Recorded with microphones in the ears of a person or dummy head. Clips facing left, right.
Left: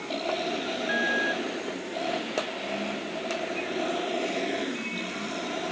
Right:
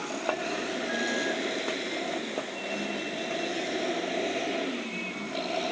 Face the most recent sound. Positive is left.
No sound to turn to.